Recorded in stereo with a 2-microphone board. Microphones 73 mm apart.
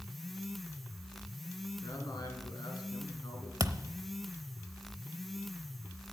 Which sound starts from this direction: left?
A man speaking, at 1.8 s.